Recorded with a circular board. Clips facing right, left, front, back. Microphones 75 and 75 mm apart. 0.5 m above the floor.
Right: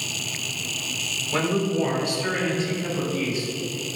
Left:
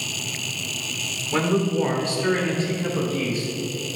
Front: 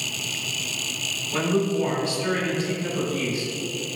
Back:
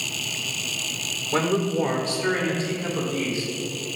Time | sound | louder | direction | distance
1.3 | a man speaking | left 2 dB, even | 145° left | 1.8 m